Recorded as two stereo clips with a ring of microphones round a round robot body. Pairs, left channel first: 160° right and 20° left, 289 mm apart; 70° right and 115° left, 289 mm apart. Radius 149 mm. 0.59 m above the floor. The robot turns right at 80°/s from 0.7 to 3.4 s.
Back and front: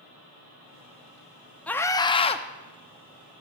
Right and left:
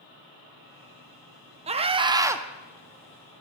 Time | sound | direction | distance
1.7 | a scream | 125° left | 0.6 m